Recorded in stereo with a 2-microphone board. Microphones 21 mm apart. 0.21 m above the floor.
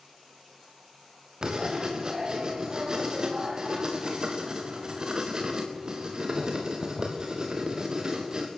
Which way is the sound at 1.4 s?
35° right (ahead or behind).